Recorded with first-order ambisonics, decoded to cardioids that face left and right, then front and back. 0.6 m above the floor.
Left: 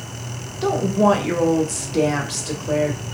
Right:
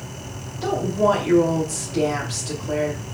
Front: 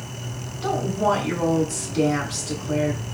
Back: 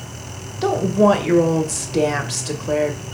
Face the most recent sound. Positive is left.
turn(degrees=160)